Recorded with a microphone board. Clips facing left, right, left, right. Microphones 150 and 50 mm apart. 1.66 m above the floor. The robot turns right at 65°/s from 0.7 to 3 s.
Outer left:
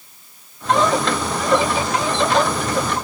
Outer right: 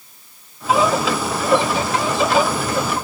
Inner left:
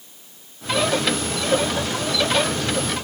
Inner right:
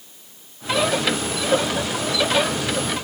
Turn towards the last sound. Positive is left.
No sound to turn to.